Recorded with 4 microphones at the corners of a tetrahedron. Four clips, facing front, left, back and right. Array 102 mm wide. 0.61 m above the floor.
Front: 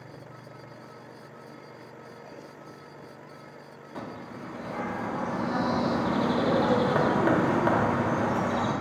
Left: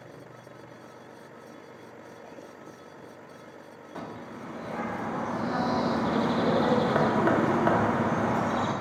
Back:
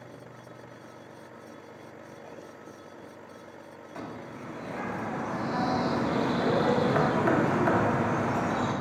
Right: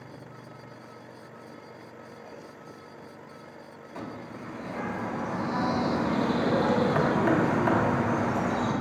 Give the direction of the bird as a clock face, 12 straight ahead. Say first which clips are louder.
Even, front 1 dB; 10 o'clock.